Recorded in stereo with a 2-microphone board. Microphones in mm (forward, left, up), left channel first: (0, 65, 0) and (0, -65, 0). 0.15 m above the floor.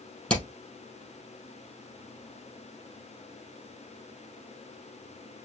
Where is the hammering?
10° left (ahead or behind), 4 m.